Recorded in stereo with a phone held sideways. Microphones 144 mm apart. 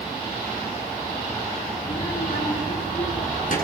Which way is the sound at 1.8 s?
70° left (ahead or behind).